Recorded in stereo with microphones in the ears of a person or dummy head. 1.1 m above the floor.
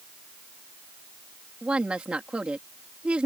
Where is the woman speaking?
5° right (ahead or behind).